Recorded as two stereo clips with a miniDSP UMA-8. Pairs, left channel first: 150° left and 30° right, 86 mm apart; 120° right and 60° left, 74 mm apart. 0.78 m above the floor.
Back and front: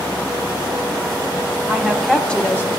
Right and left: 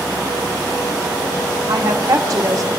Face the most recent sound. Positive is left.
turn(degrees=95)